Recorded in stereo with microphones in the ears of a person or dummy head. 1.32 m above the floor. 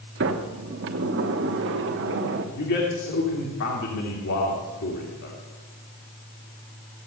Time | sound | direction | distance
0.2 | a sliding door | 60° right (ahead or behind) | 1.3 m
2.5 | a man speaking | 60° left (ahead or behind) | 2.5 m